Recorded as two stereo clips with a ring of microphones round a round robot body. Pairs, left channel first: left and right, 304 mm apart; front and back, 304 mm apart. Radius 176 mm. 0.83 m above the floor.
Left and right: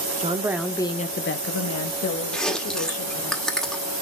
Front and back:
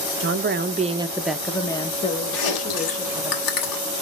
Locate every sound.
0.2 s a woman speaking: 150° right, 0.8 m; by 3.3 s 65° left, 1.8 m
2.3 s chewing: straight ahead, 1.6 m